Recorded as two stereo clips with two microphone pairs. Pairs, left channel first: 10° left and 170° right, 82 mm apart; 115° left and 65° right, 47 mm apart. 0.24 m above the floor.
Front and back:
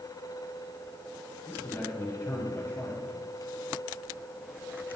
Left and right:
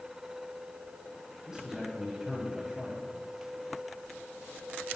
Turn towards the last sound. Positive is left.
turn(degrees=-10)